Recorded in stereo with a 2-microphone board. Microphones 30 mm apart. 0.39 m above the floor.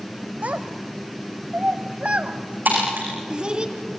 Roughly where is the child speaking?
Right.